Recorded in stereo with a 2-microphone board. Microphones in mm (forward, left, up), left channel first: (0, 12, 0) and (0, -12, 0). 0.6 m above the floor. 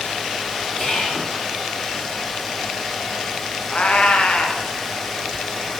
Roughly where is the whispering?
Left.